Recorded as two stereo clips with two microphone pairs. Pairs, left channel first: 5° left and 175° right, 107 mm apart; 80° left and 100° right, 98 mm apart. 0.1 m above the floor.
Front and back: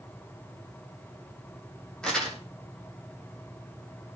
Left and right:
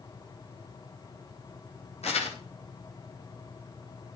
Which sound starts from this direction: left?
Crumpling, at 2.0 s.